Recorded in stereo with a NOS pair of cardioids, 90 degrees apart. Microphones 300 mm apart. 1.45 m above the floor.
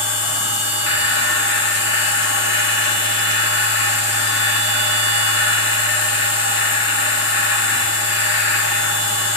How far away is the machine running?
About 1.6 m.